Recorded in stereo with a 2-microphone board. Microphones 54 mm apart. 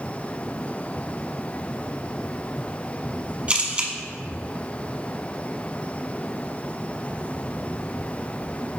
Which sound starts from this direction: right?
A camera shutter, at 3.5 s.